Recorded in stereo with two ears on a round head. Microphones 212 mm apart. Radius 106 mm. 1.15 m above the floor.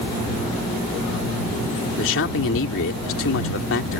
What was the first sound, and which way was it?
A man speaking, 55° left (ahead or behind).